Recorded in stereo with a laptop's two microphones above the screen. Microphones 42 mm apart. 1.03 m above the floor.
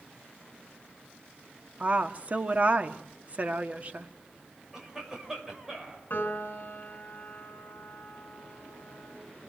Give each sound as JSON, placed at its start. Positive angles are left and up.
{"t": 1.8, "sound": "a woman speaking", "side_deg": -35, "distance_m": 1.7}
{"t": 4.7, "sound": "a cough", "side_deg": -10, "distance_m": 5.0}
{"t": 6.1, "sound": "a piano", "side_deg": 55, "distance_m": 4.5}